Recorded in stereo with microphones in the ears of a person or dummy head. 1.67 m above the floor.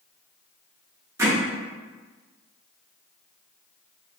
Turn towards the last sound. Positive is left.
turn(degrees=-15)  # may be behind; listen again after turning